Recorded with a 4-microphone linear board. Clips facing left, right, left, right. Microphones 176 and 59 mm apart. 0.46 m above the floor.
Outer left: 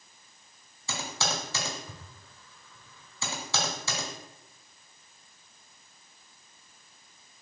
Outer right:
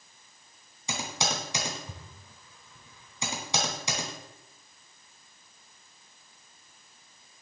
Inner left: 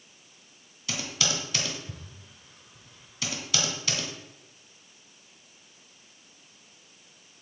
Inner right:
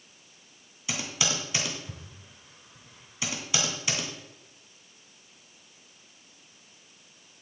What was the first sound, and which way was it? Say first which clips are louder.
Typing on a keyboard: outer right 1 dB, even; 20° right (ahead or behind).